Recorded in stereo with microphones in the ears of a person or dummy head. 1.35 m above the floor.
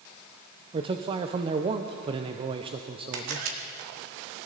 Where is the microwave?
No microwave in this recording.